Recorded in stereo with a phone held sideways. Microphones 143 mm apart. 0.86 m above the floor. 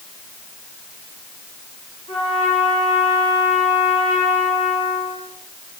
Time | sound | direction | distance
2.1 | a trumpet | 45° left (ahead or behind) | 5.5 m